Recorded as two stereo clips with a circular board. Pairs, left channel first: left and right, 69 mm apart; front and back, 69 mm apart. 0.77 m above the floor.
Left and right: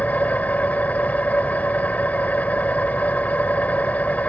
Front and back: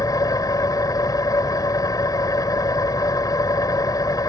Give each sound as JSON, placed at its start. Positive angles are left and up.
{"t": 0.0, "sound": "an engine running", "azimuth_deg": 25}